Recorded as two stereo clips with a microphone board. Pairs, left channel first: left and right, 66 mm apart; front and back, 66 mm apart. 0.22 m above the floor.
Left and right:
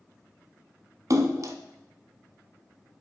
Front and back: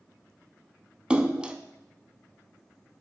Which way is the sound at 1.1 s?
105° right.